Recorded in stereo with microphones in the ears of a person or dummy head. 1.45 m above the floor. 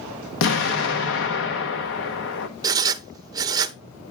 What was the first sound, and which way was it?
An explosion, 70° left (ahead or behind).